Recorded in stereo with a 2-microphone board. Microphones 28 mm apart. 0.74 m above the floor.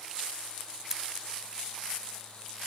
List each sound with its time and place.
0.9 s scissors: 20° right (ahead or behind)